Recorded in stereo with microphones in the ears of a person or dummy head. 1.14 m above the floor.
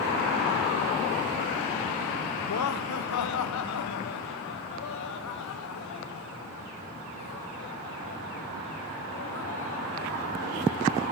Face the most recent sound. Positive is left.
turn(degrees=80)